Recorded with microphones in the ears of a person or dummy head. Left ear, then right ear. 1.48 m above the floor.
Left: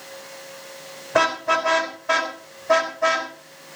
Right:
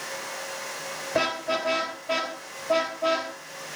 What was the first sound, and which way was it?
A car horn, 50° left (ahead or behind).